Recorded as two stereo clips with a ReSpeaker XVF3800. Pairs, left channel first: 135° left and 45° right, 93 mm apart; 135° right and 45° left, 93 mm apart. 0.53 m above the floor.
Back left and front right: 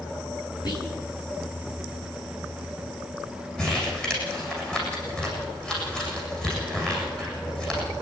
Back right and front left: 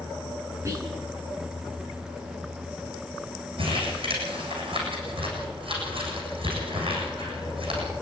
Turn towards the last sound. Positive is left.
turn(degrees=55)